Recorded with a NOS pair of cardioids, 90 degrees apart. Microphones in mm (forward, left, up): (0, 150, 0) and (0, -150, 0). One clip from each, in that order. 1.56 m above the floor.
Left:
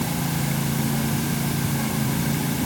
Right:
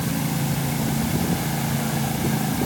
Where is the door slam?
I don't hear a door slam.